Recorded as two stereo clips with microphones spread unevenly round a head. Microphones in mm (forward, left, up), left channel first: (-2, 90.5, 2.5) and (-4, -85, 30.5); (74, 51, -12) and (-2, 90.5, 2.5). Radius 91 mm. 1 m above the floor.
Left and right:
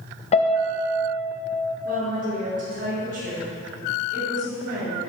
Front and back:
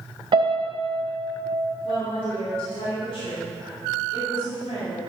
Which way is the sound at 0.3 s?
130° left.